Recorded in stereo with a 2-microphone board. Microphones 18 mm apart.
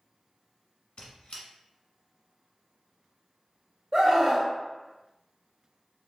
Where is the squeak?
50° left (ahead or behind), 1.0 m.